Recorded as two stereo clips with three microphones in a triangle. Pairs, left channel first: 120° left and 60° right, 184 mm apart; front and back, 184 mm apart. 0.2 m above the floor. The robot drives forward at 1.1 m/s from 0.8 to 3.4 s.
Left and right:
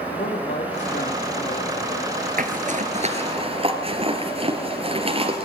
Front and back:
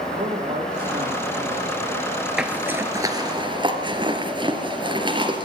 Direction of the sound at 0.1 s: 120° left.